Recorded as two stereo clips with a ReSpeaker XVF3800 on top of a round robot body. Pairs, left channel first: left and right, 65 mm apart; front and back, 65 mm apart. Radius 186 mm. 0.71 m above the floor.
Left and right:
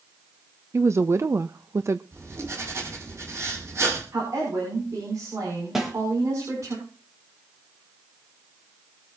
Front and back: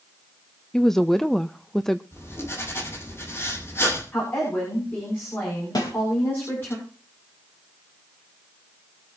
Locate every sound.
0.7 s a woman speaking: 80° right, 0.8 m
2.1 s writing: 45° right, 7 m
4.1 s a woman speaking: 55° right, 7.5 m
5.8 s a snare drum: 5° right, 4 m